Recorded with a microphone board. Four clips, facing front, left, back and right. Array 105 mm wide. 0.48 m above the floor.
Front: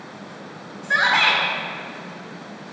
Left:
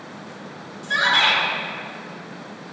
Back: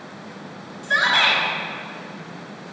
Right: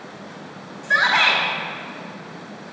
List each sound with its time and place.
0.8 s a shout: 55° right, 1.7 m